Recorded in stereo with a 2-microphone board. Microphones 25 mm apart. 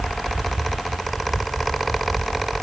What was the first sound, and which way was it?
Only background noise.